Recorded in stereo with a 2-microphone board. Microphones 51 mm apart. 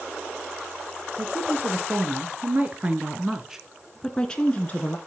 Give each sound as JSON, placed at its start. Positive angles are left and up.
{"t": 1.2, "sound": "a woman speaking", "side_deg": -45, "distance_m": 2.5}